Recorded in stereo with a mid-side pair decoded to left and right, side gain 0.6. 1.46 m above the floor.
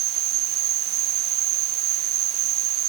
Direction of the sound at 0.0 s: 65° right.